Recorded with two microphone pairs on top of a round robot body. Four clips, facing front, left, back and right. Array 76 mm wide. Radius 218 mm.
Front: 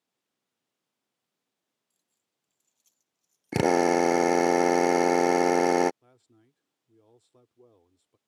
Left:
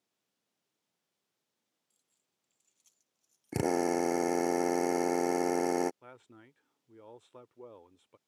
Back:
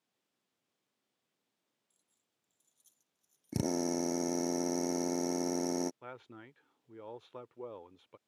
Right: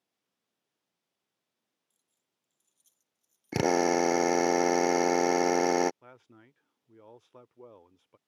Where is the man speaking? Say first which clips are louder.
Left 1 dB, back 13 dB; 175° left.